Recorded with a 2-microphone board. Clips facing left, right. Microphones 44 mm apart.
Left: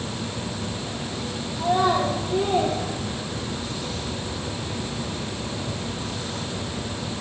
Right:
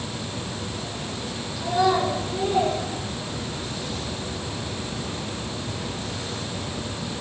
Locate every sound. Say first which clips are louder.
1.6 s a child speaking: even; 40° left (ahead or behind), 8 m; by 3.7 s 35° left (ahead or behind), 7.5 m